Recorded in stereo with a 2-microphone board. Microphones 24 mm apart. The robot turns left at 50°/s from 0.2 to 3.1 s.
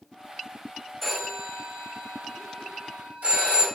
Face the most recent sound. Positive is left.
turn(degrees=-80)